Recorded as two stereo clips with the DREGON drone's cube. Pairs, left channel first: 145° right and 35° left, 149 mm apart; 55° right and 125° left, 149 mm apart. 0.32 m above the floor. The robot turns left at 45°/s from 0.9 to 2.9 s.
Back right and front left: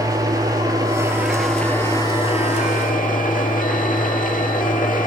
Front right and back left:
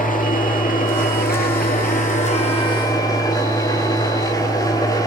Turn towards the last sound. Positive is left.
turn(degrees=-120)